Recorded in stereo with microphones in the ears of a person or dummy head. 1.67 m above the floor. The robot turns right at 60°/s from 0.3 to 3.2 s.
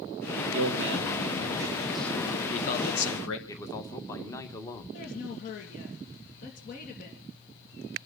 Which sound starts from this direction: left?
A woman speaking, at 4.9 s.